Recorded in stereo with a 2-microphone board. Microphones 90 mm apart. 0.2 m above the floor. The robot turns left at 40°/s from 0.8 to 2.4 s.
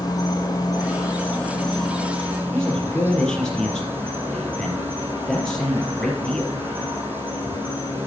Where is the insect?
40° left, 4 m; by 8.1 s 25° right, 4 m.